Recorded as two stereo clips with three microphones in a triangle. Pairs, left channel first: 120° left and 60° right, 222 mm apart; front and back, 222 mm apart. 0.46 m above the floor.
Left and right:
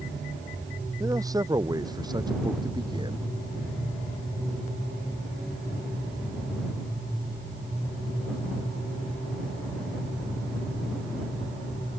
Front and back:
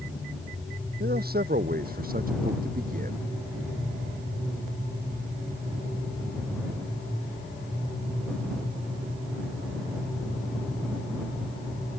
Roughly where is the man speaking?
Behind right.